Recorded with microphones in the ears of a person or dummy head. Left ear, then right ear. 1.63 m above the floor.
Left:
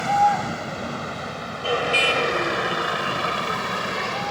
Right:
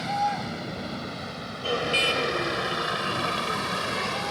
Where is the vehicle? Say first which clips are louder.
Left 8 dB; 40° left (ahead or behind); by 4.3 s 15° left (ahead or behind).